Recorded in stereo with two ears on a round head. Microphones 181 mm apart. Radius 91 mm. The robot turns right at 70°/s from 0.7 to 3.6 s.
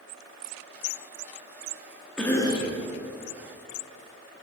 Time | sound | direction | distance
2.2 | a cough | 5° left | 0.9 m